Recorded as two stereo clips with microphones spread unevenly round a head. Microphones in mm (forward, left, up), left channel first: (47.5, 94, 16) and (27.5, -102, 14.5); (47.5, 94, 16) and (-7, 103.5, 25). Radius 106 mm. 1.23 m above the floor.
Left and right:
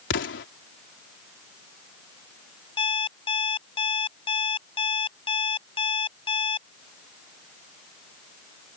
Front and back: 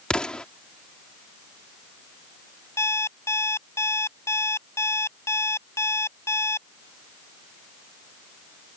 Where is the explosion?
65° left.